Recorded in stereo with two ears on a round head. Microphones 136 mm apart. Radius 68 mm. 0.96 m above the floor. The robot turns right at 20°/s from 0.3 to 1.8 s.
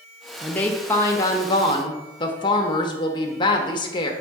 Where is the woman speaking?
5° left (ahead or behind), 1.2 m; by 4.1 s 30° left (ahead or behind), 1.2 m.